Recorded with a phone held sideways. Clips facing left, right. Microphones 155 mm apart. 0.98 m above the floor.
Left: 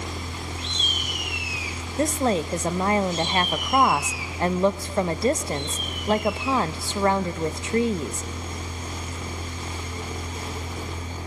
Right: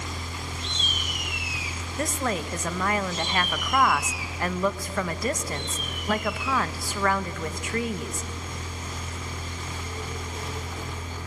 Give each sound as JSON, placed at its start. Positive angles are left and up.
{"t": 0.0, "sound": "a machine running", "side_deg": 25, "distance_m": 1.4}
{"t": 2.0, "sound": "a woman speaking", "side_deg": 25, "distance_m": 0.6}